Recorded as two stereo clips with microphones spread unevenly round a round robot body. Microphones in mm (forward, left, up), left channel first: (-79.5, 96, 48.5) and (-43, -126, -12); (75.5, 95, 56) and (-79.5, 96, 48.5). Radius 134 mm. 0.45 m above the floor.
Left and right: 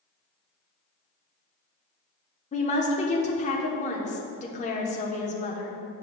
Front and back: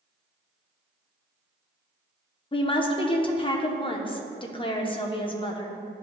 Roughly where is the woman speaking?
Ahead left.